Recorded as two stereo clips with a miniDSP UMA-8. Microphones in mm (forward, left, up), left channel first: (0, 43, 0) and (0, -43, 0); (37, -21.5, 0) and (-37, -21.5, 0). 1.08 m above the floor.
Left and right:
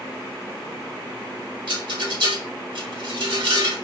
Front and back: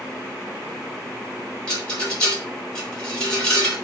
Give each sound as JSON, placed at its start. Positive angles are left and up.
{"t": 1.7, "sound": "a rattle", "azimuth_deg": -80, "distance_m": 4.5}